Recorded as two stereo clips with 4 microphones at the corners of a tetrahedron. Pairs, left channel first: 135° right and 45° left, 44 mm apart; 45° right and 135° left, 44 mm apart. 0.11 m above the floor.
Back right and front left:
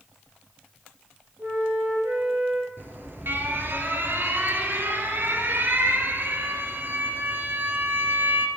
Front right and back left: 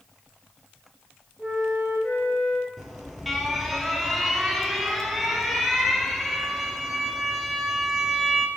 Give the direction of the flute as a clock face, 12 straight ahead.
11 o'clock.